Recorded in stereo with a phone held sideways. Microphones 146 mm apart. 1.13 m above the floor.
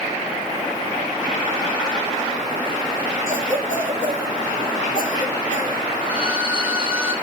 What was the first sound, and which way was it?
A cough, 65° left (ahead or behind).